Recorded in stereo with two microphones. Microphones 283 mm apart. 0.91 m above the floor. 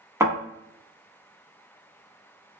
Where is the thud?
10° right (ahead or behind), 1.1 m.